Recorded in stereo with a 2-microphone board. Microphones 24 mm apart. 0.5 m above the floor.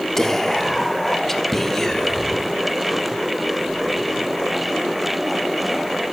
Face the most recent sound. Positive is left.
turn(degrees=15)  # may be behind; listen again after turning